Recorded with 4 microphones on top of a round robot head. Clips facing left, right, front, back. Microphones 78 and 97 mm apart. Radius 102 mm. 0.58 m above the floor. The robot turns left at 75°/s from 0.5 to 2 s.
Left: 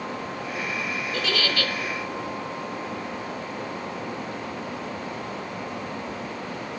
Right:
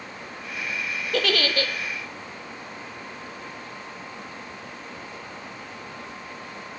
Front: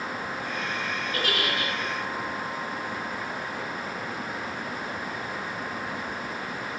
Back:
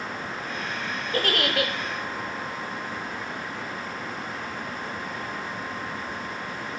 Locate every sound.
1.1 s a giggle: 115° right, 0.7 m; by 1.7 s 160° right, 0.7 m